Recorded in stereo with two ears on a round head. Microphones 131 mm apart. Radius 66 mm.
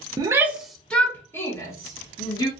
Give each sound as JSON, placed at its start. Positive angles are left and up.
{"t": 0.2, "sound": "a shout", "side_deg": -30, "distance_m": 0.6}